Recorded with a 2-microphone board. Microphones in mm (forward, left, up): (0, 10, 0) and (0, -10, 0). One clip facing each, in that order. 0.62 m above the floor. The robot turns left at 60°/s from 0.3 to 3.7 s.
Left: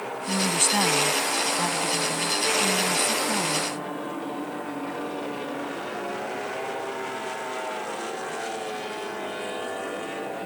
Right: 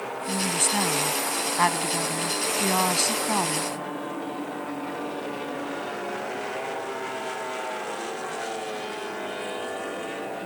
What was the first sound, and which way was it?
A woman speaking, 40° left.